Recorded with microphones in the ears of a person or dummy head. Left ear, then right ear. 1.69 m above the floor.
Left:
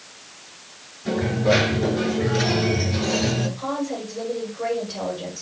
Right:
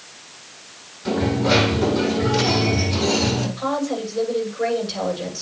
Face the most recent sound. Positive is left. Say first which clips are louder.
# right 4 dB
turn(degrees=-65)  # may be behind; listen again after turning